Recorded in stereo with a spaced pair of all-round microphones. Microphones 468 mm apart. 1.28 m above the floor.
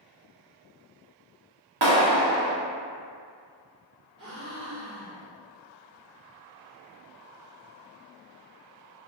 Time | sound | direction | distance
1.8 | a clap | 55° right (ahead or behind) | 0.8 m
4.2 | a gasp | 10° right (ahead or behind) | 1.5 m